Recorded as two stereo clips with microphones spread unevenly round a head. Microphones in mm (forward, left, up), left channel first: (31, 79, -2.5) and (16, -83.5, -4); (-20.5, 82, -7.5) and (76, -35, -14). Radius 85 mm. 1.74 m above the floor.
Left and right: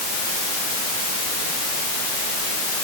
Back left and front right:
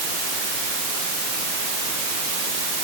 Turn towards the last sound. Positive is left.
No sound to turn to.